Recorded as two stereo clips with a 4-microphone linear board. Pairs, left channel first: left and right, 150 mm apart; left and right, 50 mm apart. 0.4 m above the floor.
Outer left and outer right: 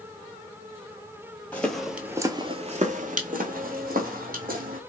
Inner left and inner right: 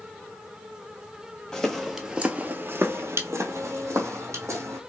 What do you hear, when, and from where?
1.5 s footsteps: 10° left (ahead or behind), 0.7 m; by 4.8 s 65° right (ahead or behind), 1.3 m